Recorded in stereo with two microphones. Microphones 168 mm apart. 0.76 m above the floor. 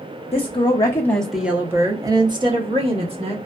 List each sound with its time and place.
0.3 s a woman speaking: 35° left (ahead or behind), 0.7 m; by 3.4 s 40° right (ahead or behind), 1.3 m